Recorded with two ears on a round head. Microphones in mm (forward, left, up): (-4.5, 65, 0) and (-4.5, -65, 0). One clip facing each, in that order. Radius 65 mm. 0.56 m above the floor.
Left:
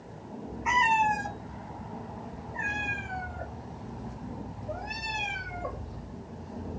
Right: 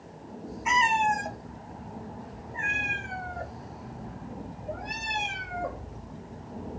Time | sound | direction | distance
0.7 | a cat meowing | 35° right (ahead or behind) | 1.0 m